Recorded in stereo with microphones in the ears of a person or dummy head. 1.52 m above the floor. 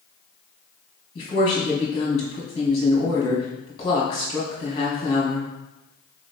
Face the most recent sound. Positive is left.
turn(degrees=35)  # may be behind; listen again after turning